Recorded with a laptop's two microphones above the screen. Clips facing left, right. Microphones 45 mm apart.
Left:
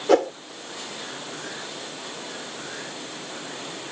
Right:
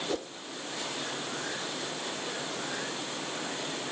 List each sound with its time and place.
0.1 s a whoosh: 85° left